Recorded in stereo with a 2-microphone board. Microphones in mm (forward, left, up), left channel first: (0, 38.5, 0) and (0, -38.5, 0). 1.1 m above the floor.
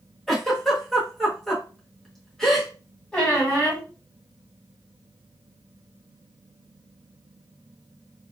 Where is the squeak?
10° left (ahead or behind), 1.6 m.